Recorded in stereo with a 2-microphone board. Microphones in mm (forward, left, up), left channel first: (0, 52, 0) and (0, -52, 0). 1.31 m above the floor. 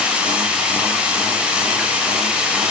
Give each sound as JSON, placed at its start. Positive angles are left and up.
{"t": 0.0, "sound": "running water", "side_deg": -10, "distance_m": 9.0}